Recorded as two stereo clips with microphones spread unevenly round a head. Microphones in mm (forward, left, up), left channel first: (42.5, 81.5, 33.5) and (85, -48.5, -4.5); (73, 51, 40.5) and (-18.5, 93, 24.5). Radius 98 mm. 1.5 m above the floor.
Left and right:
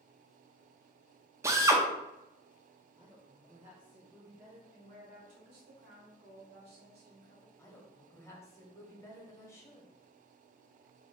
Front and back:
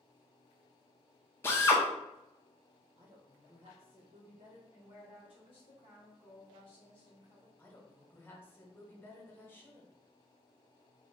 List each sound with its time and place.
1.4 s a drill: 10° left, 0.5 m
3.0 s a woman speaking: 155° right, 0.6 m
4.7 s a woman speaking: 85° right, 1.0 m
7.6 s a woman speaking: 40° left, 1.0 m